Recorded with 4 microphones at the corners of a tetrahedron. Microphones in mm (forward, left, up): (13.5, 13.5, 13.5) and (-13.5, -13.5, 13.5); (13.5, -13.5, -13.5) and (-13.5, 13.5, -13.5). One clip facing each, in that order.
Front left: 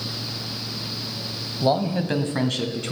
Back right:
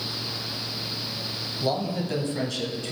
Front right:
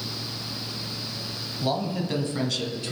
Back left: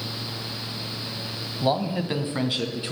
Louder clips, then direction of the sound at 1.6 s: Front left 6 dB, back left 3 dB; 85° left.